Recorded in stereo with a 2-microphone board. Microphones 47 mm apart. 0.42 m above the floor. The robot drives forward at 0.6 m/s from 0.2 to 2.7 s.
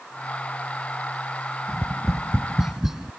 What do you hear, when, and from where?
1.7 s tapping: 5° right (ahead or behind); by 3.1 s 10° right (ahead or behind)